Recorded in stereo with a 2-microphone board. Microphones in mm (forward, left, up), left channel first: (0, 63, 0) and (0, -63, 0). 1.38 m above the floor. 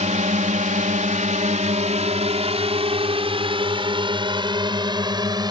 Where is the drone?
70° right (ahead or behind); by 5.5 s 35° right (ahead or behind).